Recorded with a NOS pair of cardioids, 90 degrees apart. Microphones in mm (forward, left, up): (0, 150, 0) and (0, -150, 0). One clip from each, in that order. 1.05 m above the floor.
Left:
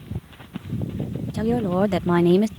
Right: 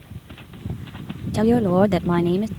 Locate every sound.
1.3 s a woman speaking: 35° right; by 2.5 s 35° left